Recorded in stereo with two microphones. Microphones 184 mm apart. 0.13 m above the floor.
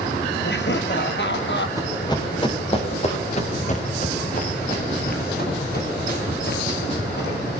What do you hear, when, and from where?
0.4 s laughter: 65° left (ahead or behind), 3 m
1.8 s running footsteps: 20° left (ahead or behind), 5.5 m; by 7.3 s 60° left (ahead or behind), 10 m